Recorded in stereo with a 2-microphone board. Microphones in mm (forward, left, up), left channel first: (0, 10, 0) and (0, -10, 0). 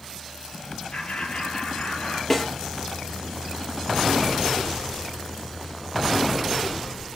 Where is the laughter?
60° left (ahead or behind), 6 m; by 2.2 s 65° left (ahead or behind), 7.5 m.